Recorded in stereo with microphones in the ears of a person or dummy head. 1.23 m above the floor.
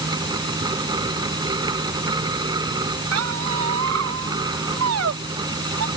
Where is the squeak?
85° right.